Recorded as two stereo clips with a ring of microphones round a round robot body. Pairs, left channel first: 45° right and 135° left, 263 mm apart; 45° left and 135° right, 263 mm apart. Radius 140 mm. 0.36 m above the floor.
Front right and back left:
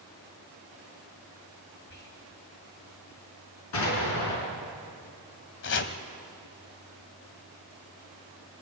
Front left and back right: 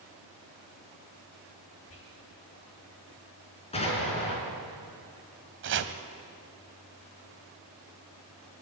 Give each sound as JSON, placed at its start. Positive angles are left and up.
{"t": 1.9, "sound": "whispering", "azimuth_deg": 5, "distance_m": 5.5}
{"t": 3.7, "sound": "an explosion", "azimuth_deg": -25, "distance_m": 4.5}
{"t": 5.6, "sound": "chopping", "azimuth_deg": -90, "distance_m": 1.1}